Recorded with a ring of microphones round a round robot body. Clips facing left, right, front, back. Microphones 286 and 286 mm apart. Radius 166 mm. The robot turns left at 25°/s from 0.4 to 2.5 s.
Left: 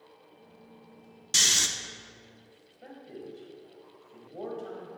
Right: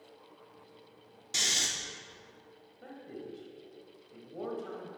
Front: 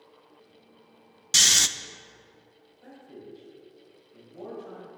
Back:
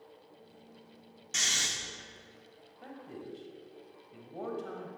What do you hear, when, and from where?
1.3 s snoring: 25° left, 0.5 m; by 1.7 s 15° left, 0.5 m
2.8 s a man speaking: 165° right, 3 m